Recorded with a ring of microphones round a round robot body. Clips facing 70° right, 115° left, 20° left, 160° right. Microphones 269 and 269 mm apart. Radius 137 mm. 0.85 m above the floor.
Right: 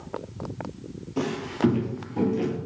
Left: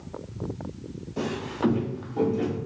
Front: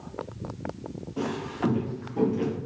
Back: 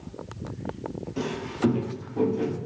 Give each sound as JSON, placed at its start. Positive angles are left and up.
{"t": 1.2, "sound": "footsteps", "azimuth_deg": -125, "distance_m": 1.1}